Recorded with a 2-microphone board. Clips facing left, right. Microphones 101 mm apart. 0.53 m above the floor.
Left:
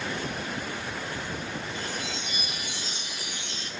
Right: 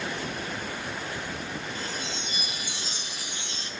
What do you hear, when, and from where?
1.8 s a chime: 30° right (ahead or behind), 2 m